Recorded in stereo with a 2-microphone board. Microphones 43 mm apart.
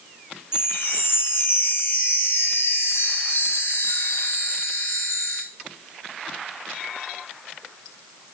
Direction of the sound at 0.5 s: 75° left (ahead or behind).